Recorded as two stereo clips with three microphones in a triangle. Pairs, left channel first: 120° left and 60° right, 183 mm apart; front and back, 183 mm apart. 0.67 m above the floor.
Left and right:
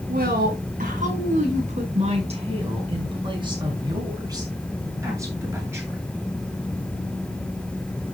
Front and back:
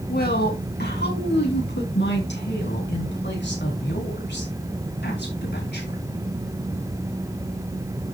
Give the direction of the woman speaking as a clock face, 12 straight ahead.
1 o'clock.